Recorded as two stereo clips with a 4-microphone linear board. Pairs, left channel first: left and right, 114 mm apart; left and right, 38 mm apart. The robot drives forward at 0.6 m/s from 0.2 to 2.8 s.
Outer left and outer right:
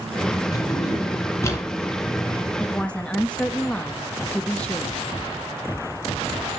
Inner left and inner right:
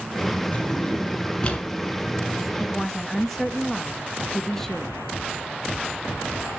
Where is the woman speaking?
10° left (ahead or behind), 0.9 m.